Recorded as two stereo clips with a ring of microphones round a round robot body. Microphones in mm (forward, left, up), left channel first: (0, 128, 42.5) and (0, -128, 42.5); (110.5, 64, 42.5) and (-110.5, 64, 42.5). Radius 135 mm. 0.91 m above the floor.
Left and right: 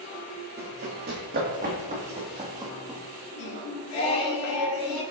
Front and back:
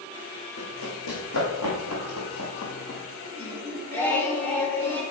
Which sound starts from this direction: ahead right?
Running footsteps, at 0.6 s.